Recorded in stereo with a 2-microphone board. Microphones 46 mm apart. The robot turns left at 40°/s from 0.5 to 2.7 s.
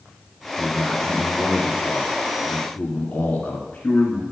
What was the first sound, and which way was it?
A man speaking, 150° right.